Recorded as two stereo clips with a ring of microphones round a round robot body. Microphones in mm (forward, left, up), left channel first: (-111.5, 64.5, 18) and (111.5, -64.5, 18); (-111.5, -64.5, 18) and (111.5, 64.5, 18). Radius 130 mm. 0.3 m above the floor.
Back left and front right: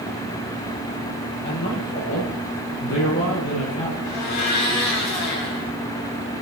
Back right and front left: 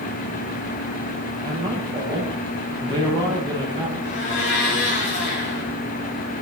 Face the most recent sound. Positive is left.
turn(degrees=165)